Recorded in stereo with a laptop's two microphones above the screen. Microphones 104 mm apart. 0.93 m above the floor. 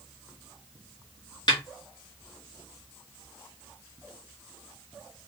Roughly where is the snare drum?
Left.